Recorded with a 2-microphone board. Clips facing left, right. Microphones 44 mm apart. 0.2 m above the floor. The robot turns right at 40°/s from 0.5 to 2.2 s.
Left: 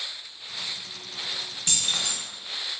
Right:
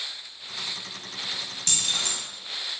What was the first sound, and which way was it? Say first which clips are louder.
Keys jangling: even; 20° left (ahead or behind).